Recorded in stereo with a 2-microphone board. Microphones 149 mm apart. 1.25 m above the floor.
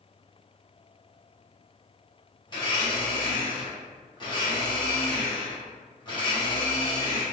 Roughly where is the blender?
Left.